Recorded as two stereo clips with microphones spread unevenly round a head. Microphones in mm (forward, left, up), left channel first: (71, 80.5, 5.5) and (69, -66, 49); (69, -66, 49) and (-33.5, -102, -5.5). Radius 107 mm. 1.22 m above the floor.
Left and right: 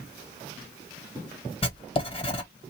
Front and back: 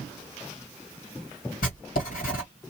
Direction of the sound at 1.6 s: 40° left.